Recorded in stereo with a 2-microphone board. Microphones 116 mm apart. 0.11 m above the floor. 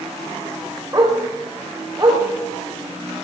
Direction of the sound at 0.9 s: 30° right (ahead or behind).